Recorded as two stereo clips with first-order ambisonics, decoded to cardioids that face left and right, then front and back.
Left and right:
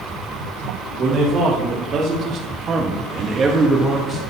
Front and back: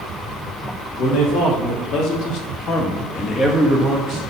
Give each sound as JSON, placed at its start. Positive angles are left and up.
{"t": 1.0, "sound": "a man speaking", "azimuth_deg": -30, "distance_m": 2.5}